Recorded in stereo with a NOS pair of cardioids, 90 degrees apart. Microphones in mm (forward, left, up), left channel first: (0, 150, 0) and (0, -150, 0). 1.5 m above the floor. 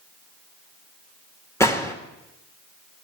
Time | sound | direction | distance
1.6 | a gunshot | 10° left | 2 m